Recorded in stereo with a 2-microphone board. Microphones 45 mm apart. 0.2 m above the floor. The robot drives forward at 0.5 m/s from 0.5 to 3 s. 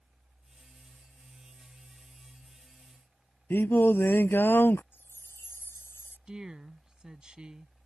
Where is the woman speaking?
20° right (ahead or behind).